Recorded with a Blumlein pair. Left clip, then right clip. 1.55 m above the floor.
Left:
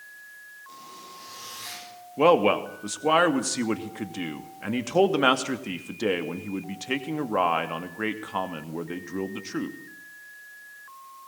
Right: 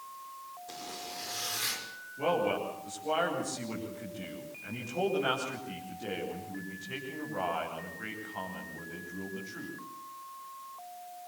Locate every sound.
0.7 s a zipper: 60° right, 6 m
2.2 s a man speaking: 40° left, 2.5 m